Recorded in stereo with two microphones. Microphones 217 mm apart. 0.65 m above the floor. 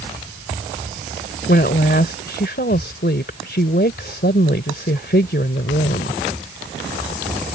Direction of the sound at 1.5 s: 50° left (ahead or behind).